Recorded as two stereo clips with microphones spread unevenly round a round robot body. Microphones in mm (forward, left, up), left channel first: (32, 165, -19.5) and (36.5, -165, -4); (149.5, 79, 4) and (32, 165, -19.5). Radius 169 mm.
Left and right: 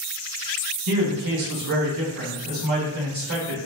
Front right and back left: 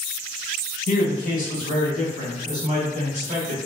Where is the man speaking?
60° right, 1.4 m; by 3.6 s 140° right, 1.8 m.